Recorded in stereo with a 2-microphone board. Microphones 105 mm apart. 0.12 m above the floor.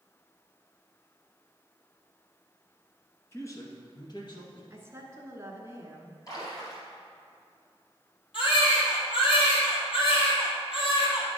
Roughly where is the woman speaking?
Right.